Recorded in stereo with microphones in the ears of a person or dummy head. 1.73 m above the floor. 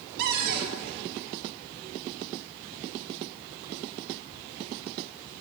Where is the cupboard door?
55° right (ahead or behind), 1.1 m.